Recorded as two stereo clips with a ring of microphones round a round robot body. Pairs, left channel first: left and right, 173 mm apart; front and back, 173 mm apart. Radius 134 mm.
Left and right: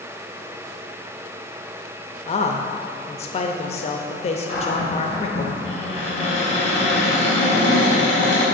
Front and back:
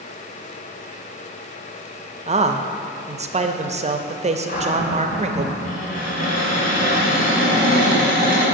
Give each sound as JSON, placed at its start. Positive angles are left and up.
{"t": 2.3, "sound": "a man speaking", "azimuth_deg": 135, "distance_m": 0.7}
{"t": 4.5, "sound": "a cupboard door", "azimuth_deg": 40, "distance_m": 4.0}